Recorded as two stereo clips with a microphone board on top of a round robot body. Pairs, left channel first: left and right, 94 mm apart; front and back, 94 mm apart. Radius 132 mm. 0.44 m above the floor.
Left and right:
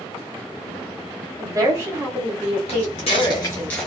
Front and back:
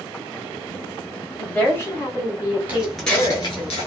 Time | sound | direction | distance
1.4 | a woman speaking | 70° right | 1.6 m
2.7 | footsteps | 110° left | 0.6 m